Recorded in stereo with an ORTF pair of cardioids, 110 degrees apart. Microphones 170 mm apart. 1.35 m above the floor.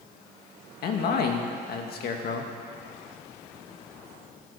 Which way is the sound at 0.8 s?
65° left.